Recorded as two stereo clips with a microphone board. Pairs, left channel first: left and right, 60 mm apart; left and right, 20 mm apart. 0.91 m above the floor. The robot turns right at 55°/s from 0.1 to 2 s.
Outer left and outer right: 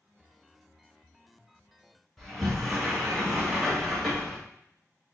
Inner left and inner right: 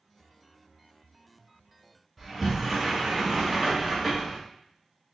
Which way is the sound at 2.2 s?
Centre (ahead or behind).